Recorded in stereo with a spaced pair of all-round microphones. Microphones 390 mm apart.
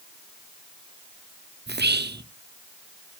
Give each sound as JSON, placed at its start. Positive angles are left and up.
{"t": 1.7, "sound": "whispering", "side_deg": -25, "distance_m": 0.7}